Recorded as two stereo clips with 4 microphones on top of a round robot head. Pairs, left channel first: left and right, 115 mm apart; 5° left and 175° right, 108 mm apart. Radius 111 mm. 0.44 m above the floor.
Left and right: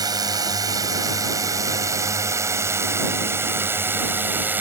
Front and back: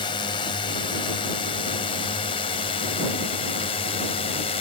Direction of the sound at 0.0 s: 40° right.